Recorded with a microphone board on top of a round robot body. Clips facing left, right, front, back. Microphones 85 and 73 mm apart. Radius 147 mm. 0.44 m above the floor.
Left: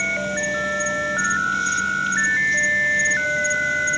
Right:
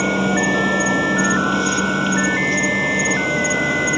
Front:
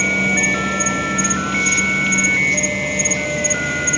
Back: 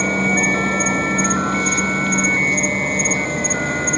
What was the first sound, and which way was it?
An insect, 125° right.